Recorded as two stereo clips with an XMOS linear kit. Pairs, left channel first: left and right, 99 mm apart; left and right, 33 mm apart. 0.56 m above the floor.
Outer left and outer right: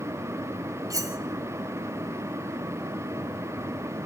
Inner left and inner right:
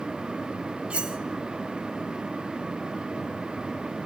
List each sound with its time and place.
0.9 s cutlery clinking: 35° right (ahead or behind), 0.7 m